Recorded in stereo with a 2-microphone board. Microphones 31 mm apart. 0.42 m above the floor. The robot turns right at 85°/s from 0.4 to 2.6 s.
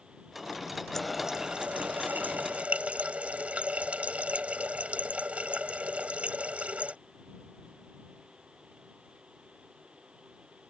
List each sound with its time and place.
0.9 s a running tap: 170° left; by 7.0 s 50° right